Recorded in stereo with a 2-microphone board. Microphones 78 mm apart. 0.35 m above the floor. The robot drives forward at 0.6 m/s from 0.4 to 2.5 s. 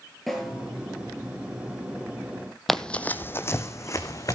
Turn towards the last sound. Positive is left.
turn(degrees=45)  # may be behind; listen again after turning